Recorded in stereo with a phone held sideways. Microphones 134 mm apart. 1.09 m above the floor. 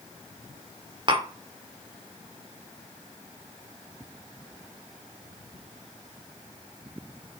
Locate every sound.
1.1 s tapping: 35° right (ahead or behind), 0.8 m